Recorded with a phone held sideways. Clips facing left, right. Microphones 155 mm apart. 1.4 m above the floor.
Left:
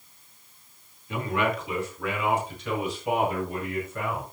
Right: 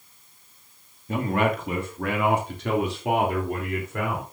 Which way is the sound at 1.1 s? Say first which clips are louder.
Right 3 dB; 45° right (ahead or behind).